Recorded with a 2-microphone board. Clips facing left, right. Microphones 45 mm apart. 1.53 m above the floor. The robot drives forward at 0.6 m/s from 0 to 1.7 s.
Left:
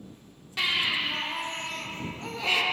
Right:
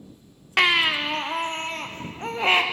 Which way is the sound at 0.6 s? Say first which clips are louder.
Right 7 dB; 65° right (ahead or behind).